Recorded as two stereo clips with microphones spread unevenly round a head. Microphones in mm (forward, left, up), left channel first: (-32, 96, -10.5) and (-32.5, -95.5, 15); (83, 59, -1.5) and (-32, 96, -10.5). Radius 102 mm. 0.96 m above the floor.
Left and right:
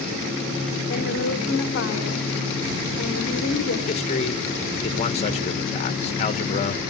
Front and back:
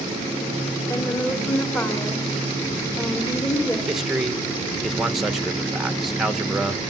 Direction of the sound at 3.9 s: 80° left.